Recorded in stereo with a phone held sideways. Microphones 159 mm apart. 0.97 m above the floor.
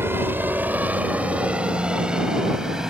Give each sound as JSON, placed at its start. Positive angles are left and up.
{"t": 0.0, "sound": "a helicopter", "side_deg": -15}